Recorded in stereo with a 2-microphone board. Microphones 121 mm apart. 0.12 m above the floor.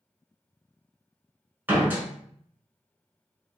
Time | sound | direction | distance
1.7 | a door slam | 15° right (ahead or behind) | 1.0 m